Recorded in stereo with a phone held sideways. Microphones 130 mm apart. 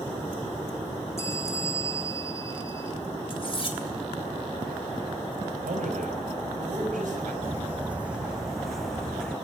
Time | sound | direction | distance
1.2 | a bell | 20° left (ahead or behind) | 1.5 m
3.3 | cutlery clinking | 45° left (ahead or behind) | 2.5 m
5.7 | a man speaking | 80° right | 5 m
7.4 | footsteps | 20° right (ahead or behind) | 1.9 m